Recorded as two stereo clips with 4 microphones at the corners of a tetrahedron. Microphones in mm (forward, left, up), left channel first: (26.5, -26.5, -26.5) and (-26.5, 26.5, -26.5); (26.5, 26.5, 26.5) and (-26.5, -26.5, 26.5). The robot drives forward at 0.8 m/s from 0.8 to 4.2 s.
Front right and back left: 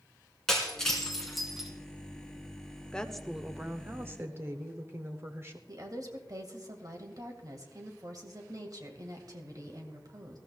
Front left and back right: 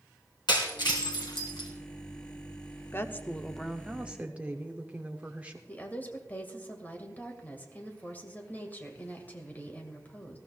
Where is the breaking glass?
40° left, 2.5 m; by 1.7 s 50° left, 2 m.